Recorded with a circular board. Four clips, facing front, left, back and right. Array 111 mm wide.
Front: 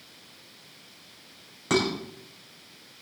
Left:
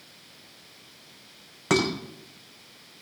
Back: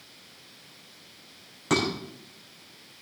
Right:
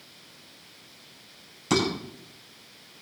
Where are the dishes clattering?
90° left, 4.5 m.